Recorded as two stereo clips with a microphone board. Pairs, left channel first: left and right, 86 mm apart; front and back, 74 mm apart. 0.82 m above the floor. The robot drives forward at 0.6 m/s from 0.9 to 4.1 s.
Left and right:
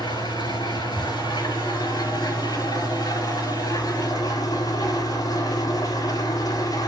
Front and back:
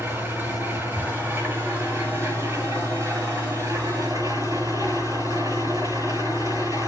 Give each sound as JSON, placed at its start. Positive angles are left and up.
{"t": 0.0, "sound": "an engine running", "azimuth_deg": 115, "distance_m": 5.5}